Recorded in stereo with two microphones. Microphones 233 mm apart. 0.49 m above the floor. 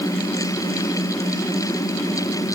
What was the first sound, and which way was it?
Only background noise.